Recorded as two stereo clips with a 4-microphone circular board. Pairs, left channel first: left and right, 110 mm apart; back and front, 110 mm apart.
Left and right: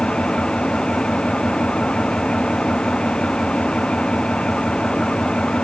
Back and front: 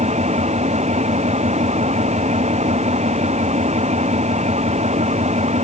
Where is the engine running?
10° left.